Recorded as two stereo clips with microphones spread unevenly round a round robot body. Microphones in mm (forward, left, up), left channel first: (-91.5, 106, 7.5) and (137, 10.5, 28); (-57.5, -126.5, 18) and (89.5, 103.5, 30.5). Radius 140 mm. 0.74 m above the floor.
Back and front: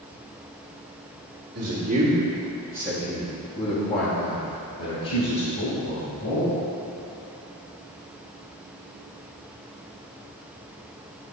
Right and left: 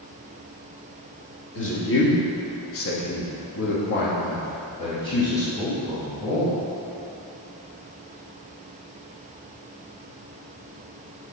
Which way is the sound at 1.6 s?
80° right.